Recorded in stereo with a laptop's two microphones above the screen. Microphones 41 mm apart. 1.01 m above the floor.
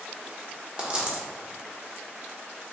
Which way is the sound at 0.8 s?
25° right (ahead or behind).